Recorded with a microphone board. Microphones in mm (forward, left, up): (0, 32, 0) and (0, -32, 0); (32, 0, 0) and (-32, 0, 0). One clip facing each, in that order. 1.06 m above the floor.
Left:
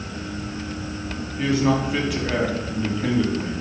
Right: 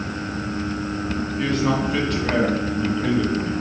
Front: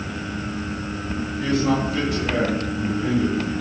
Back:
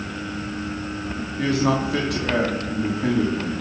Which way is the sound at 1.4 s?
175° left.